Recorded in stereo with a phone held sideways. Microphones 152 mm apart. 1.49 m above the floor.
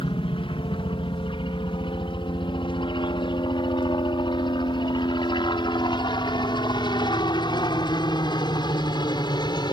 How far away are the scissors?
No scissors in this recording.